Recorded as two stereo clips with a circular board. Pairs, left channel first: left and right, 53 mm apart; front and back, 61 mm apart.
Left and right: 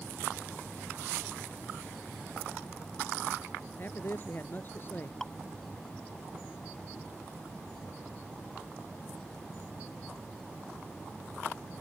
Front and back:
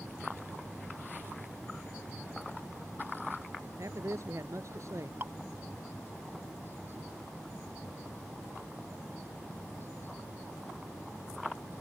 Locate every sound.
3.8 s a man speaking: 140° left
5.2 s dripping: 170° left